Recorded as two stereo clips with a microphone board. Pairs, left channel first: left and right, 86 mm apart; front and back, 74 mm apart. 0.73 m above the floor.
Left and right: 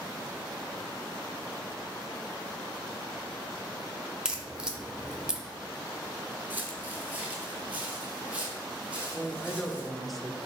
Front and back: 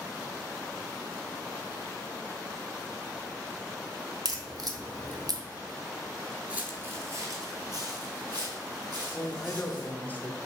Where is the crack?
170° right, 0.6 m.